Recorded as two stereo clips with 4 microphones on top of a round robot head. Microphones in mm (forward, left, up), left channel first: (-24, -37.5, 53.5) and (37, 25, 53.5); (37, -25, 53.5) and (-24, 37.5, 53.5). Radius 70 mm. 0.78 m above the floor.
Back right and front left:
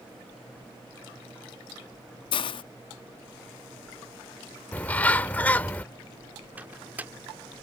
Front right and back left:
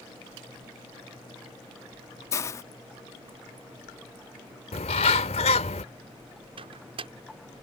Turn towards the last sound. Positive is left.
turn(degrees=120)